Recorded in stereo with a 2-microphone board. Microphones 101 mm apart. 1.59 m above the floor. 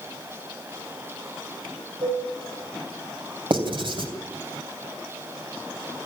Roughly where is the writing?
Right.